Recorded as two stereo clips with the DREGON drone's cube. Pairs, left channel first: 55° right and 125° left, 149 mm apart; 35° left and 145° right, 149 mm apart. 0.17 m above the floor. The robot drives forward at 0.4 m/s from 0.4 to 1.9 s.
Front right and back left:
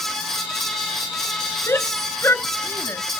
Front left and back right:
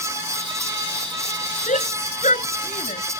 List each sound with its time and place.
1.7 s a shout: 15° left